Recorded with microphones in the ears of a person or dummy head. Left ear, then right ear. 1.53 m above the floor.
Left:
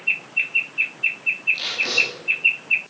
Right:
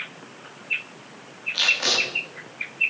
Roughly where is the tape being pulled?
Right.